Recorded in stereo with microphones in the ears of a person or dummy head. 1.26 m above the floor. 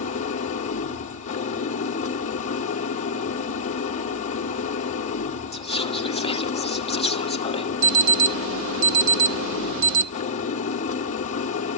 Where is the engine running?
35° left (ahead or behind), 1.3 m.